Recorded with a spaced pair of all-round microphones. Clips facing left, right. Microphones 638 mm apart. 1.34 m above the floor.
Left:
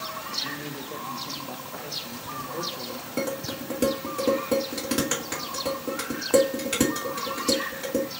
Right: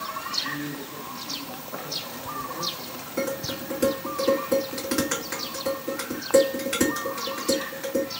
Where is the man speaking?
75° left (ahead or behind), 1.5 m.